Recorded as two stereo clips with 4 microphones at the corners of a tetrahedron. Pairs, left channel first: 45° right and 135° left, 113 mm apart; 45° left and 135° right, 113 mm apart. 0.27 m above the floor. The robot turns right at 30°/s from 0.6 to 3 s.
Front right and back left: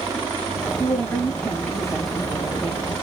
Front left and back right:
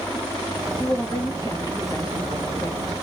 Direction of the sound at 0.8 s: 10° left.